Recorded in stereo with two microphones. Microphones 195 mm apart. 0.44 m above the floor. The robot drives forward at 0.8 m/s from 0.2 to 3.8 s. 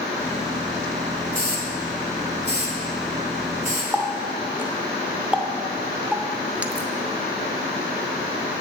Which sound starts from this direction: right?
A hiss, at 1.3 s.